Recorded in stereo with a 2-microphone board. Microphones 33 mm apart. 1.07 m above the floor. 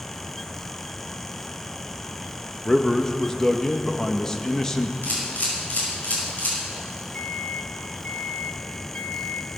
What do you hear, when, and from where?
2.6 s a man speaking: 15° left (ahead or behind), 1.1 m
5.0 s a camera shutter: 55° left (ahead or behind), 5 m
7.1 s a microwave: 65° left (ahead or behind), 0.9 m